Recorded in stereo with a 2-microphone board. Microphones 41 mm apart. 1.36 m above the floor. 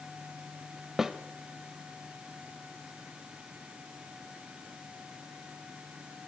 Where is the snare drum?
10° right (ahead or behind), 1.6 m.